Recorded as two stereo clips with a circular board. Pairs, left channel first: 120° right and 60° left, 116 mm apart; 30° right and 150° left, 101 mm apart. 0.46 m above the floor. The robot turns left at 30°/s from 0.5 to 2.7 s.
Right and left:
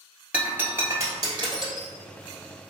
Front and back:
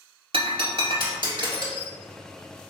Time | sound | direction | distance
0.3 | breaking glass | 135° left | 1.5 m